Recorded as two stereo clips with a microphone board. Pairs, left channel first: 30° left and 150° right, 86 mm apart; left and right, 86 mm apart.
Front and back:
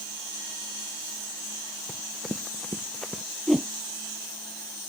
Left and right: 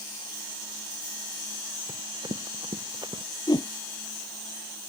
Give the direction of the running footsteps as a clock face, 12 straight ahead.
2 o'clock.